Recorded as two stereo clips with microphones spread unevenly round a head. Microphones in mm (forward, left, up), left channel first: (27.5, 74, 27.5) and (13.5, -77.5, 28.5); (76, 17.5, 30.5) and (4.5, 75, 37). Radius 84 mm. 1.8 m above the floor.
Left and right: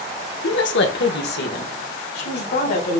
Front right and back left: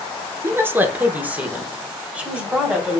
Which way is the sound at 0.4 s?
75° left.